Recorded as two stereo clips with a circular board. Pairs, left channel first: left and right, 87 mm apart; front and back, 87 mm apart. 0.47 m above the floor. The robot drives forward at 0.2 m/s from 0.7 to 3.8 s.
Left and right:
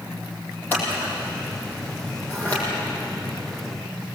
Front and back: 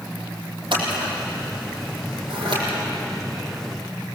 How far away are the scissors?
About 7.5 m.